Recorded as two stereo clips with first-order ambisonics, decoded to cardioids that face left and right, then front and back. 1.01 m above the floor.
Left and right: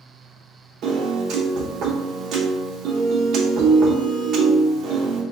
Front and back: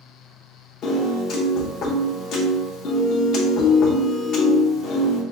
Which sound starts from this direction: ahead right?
A piano, at 0.8 s.